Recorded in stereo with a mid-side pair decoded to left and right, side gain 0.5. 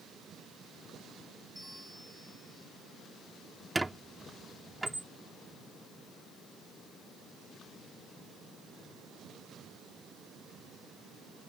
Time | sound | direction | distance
1.6 | a bell | 10° left | ?
3.8 | a squeak | 10° right | ?